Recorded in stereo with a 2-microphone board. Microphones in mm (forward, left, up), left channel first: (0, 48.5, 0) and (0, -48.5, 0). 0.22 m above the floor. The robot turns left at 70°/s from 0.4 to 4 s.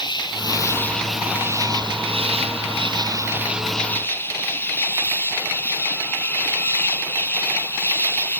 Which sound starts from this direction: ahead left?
An insect, at 0.0 s.